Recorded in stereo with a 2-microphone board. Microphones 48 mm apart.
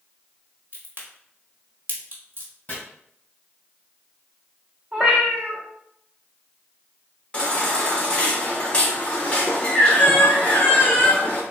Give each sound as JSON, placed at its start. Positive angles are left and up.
{"t": 0.7, "sound": "a crack", "side_deg": -45, "distance_m": 1.4}
{"t": 2.7, "sound": "chopping", "side_deg": 30, "distance_m": 1.8}
{"t": 4.9, "sound": "a cat meowing", "side_deg": -20, "distance_m": 1.5}
{"t": 7.3, "sound": "a baby crying", "side_deg": 25, "distance_m": 1.0}